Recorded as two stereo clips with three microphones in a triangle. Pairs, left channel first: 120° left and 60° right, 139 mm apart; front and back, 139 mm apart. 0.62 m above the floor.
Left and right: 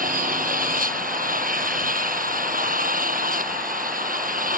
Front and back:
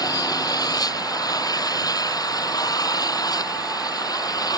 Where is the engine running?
65° right.